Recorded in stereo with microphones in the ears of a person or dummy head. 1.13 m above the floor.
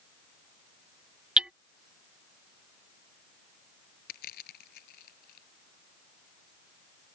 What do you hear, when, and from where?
1.4 s hammering: 10° right (ahead or behind)
4.1 s crushing: 50° left (ahead or behind)